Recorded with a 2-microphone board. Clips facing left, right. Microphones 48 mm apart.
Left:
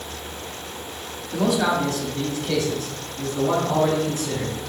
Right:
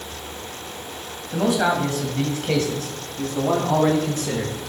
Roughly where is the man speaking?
Centre.